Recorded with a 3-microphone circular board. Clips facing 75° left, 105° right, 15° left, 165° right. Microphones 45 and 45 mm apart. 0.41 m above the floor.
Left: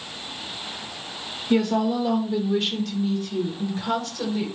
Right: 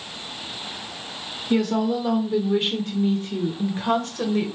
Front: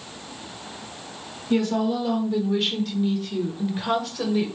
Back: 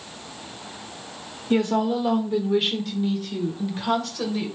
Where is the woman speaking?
160° left, 1.0 m; by 4.5 s 60° right, 1.5 m.